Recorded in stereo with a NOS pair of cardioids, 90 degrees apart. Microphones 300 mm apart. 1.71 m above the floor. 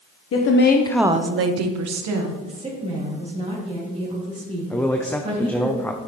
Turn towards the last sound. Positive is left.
turn(degrees=5)